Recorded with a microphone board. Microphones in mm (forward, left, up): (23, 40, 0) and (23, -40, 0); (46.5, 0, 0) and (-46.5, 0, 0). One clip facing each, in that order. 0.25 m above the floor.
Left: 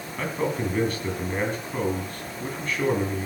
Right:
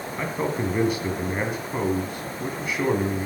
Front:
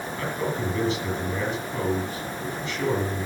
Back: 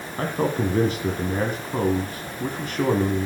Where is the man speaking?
160° right, 1.9 m.